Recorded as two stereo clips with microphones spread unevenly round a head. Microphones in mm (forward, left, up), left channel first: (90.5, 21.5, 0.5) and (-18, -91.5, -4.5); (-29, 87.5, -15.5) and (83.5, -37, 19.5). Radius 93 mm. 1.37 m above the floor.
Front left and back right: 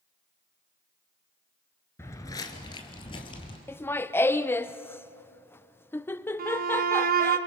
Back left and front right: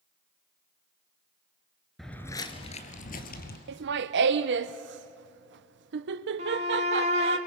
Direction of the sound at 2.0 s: 10° left.